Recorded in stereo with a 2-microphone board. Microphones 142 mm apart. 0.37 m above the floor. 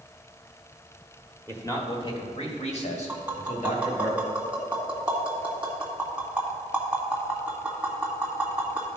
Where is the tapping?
10° right (ahead or behind), 1.8 m.